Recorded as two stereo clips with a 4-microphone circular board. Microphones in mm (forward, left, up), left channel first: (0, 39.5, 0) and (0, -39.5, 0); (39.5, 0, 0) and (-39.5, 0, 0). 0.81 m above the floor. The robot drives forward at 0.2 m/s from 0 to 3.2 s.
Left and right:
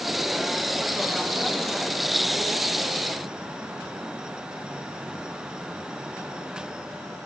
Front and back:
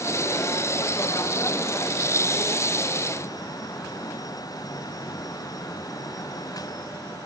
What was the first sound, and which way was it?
Only background noise.